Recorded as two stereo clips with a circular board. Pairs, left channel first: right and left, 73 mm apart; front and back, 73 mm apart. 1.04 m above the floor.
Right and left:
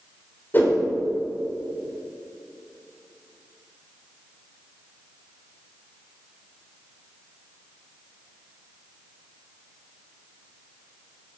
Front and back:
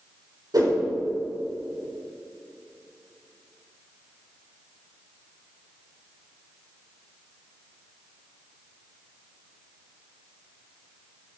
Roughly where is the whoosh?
Behind right.